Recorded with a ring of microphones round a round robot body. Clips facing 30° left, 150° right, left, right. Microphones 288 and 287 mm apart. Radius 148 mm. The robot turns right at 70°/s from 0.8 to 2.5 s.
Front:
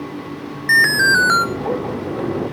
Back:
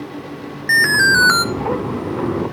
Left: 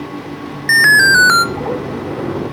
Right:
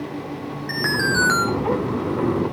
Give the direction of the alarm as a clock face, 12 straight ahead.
8 o'clock.